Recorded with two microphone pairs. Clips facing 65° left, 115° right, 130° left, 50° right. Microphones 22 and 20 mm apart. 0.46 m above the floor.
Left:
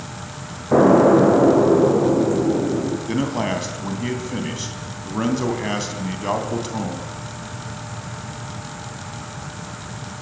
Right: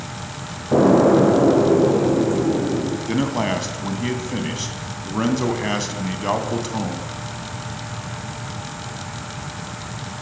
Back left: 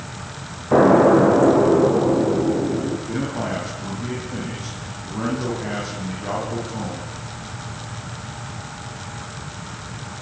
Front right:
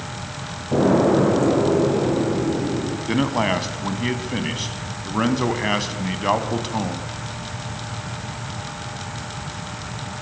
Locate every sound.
0.7 s an explosion: 120° left, 6 m
3.1 s a man speaking: 30° right, 3 m